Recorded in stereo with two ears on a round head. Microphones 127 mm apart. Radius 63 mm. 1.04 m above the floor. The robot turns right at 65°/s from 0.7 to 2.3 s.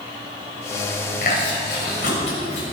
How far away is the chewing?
About 6 m.